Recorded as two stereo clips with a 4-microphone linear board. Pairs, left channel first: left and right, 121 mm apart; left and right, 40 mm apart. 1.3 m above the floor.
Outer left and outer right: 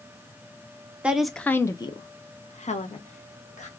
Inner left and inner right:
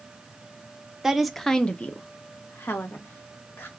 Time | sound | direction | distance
1.0 | a woman speaking | 10° right (ahead or behind) | 0.5 m